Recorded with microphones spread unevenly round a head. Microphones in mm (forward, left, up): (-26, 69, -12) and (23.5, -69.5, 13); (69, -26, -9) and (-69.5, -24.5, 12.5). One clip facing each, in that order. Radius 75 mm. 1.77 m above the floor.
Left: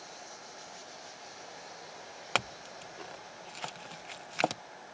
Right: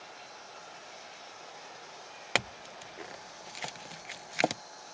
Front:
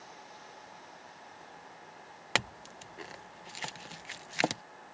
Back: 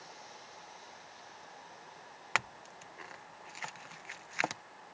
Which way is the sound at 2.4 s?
30° right.